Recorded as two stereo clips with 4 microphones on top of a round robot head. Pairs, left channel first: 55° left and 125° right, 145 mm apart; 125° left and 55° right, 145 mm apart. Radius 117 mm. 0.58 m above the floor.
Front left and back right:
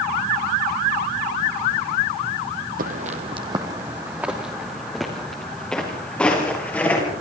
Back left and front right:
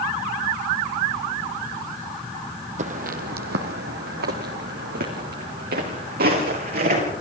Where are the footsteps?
95° right, 1.8 m; by 7.1 s 25° right, 7 m.